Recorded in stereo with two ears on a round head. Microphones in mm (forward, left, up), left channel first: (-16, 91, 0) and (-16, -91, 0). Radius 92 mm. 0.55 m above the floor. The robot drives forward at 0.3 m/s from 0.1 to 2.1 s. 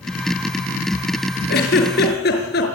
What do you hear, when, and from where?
1.5 s a giggle: 50° left (ahead or behind), 6 m